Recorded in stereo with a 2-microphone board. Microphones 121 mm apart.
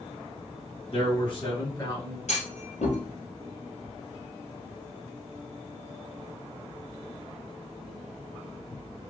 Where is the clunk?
70° left (ahead or behind), 1.8 m.